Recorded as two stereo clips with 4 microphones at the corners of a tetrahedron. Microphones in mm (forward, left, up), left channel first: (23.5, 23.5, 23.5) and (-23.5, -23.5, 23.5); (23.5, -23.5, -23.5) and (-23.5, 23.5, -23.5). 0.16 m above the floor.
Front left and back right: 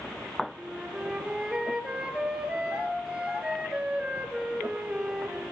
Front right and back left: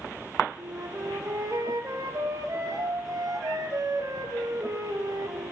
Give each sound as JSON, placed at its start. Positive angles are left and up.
{"t": 0.6, "sound": "a flute", "azimuth_deg": 150, "distance_m": 0.6}